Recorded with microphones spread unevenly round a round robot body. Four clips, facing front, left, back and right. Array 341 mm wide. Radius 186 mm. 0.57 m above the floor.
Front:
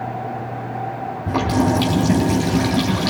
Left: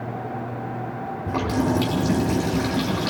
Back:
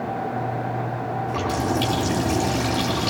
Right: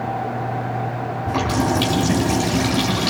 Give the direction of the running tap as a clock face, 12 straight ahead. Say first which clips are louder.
Right 2 dB, front 8 dB; 12 o'clock.